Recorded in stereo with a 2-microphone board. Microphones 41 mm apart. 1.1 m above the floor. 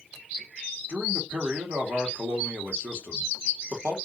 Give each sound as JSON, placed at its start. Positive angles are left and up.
{"t": 0.9, "sound": "a man speaking", "side_deg": -65, "distance_m": 1.3}